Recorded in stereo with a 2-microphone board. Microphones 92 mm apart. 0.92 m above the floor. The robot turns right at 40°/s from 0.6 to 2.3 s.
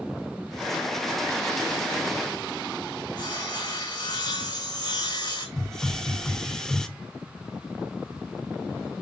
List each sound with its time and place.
3.2 s sawing: 55° left (ahead or behind), 2 m
5.6 s a hiss: 5° left (ahead or behind), 0.5 m